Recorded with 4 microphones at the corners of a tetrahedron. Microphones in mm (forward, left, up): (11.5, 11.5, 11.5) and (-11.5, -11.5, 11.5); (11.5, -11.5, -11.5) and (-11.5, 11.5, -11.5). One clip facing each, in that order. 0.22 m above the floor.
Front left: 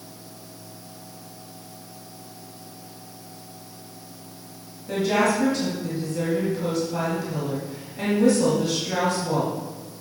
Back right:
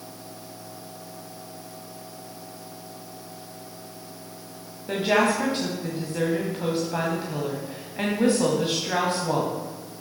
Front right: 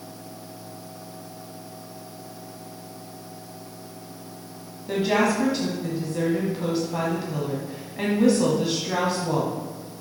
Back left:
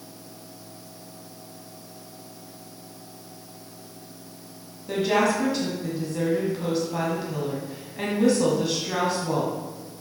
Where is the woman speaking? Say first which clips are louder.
Even, even; 125° right, 1.4 m.